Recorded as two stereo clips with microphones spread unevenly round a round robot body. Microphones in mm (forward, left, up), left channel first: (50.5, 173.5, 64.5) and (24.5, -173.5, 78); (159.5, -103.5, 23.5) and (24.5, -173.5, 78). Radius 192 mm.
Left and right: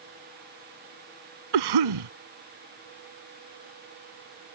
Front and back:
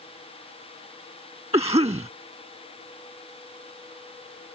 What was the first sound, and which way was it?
A cough, 95° right.